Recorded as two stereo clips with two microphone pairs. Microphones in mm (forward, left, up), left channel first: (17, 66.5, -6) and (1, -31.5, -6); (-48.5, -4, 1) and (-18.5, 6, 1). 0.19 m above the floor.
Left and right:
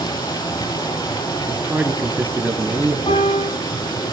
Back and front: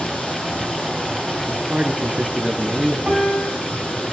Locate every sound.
0.0 s running water: 130° left, 6.5 m
1.5 s a man speaking: 30° right, 3 m
3.1 s a piano: 105° left, 6.5 m